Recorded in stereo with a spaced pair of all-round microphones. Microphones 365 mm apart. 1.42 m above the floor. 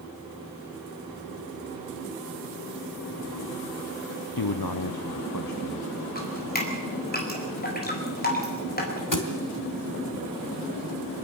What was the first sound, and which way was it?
A man speaking, 70° left (ahead or behind).